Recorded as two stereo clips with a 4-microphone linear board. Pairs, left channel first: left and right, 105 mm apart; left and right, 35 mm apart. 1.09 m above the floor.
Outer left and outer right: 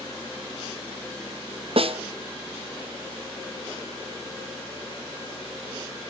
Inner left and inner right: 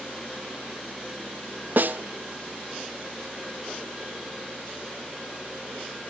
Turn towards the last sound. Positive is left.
turn(degrees=-65)  # may be behind; listen again after turning